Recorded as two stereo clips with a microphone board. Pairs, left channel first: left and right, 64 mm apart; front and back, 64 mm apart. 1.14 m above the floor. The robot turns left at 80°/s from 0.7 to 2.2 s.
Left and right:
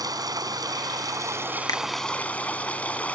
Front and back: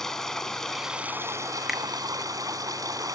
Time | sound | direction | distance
0.0 | running water | 85° right | ?
1.7 | a finger snap | 95° left | ?